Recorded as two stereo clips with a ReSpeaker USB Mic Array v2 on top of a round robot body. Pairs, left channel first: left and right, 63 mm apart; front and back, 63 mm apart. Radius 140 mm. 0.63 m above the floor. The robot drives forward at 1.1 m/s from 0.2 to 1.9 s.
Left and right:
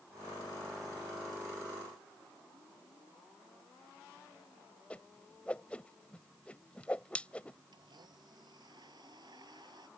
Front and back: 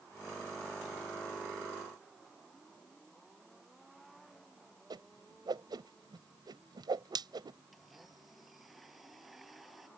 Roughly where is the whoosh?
Behind.